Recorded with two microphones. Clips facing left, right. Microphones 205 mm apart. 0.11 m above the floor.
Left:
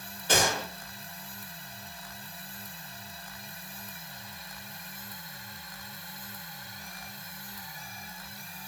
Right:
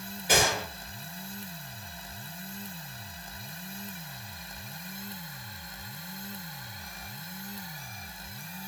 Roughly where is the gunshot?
Centre.